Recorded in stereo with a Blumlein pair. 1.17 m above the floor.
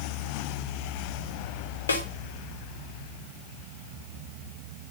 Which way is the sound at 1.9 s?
70° left.